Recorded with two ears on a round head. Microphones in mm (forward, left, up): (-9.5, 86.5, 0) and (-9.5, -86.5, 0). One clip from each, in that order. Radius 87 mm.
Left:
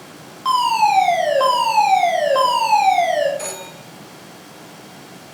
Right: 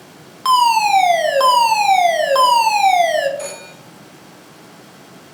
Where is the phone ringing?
5° left (ahead or behind), 1.3 m.